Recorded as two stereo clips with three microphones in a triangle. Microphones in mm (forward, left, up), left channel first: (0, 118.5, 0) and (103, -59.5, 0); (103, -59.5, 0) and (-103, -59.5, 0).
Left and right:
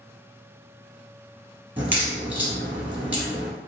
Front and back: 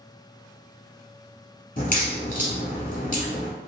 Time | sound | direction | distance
1.8 | a crack | 20° left | 1.4 m